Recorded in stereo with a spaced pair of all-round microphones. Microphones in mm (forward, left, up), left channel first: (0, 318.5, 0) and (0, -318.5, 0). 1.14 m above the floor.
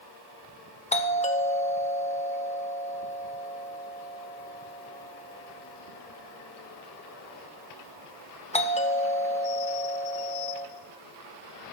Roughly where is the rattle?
No rattle in this recording.